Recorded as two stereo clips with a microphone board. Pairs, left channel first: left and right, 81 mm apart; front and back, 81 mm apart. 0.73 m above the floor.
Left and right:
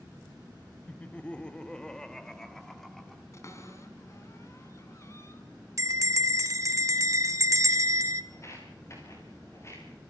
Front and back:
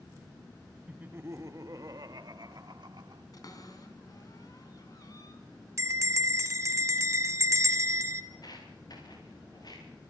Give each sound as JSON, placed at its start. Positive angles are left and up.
{"t": 0.9, "sound": "laughter", "azimuth_deg": 130, "distance_m": 0.8}
{"t": 3.3, "sound": "a cupboard door", "azimuth_deg": 40, "distance_m": 4.0}
{"t": 5.8, "sound": "a bell", "azimuth_deg": -130, "distance_m": 1.4}
{"t": 8.3, "sound": "footsteps", "azimuth_deg": 35, "distance_m": 8.5}